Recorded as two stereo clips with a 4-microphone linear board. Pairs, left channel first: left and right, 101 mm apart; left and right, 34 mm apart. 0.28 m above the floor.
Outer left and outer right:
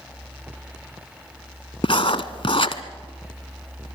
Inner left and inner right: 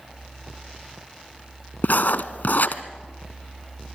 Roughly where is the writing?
Left.